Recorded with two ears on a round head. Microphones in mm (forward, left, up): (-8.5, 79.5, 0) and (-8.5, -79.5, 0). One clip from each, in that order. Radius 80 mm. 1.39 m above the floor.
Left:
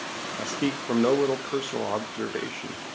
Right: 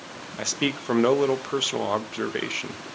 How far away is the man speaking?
About 1.3 m.